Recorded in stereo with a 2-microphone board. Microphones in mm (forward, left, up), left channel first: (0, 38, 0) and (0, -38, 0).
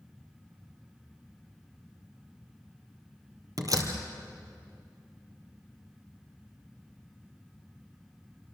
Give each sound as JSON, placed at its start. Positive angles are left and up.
{"t": 3.6, "sound": "a door slam", "side_deg": -50, "distance_m": 3.0}